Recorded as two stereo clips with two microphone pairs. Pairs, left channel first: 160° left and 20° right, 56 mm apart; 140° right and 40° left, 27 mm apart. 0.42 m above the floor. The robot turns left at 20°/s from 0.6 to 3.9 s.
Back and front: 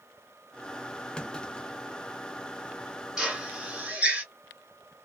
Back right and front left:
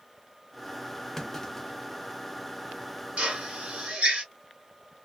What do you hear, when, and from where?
1.2 s a clunk: 175° left, 0.5 m; by 1.8 s 165° left, 0.5 m
3.2 s a drill: 55° left, 1.5 m; by 4.2 s 40° left, 1.5 m